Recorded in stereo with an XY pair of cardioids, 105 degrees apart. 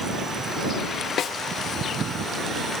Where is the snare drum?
60° left.